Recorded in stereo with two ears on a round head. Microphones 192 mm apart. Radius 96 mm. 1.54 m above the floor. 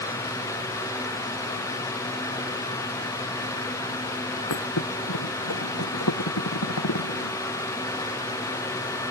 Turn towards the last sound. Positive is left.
turn(degrees=85)